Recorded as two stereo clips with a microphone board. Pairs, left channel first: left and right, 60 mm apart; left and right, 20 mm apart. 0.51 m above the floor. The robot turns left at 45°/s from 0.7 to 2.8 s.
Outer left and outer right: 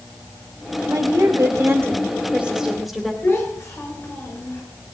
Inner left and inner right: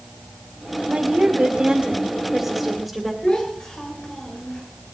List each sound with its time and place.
0.9 s a woman speaking: 95° right, 2 m; by 3.1 s 175° left, 2 m
3.2 s a child speaking: 45° left (ahead or behind), 6 m